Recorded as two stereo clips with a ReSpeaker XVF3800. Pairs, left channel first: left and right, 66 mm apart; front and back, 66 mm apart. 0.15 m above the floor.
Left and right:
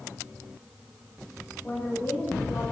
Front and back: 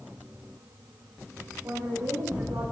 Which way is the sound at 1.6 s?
155° left.